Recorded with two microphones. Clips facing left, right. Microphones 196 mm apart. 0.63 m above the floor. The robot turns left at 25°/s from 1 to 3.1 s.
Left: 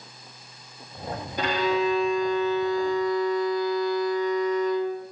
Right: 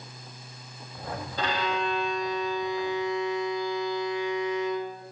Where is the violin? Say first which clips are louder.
Left 6 dB; 15° left, 4.5 m; by 5.0 s 25° right, 4.5 m.